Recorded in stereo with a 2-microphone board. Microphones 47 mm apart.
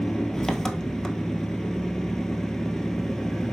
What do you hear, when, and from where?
0.0 s an engine running: 10° left (ahead or behind), 1.2 m